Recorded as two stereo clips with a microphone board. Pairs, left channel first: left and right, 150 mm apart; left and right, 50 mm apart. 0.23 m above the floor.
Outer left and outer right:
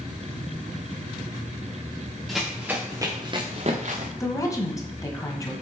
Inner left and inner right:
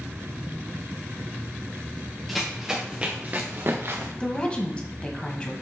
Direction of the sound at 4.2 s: 25° left (ahead or behind).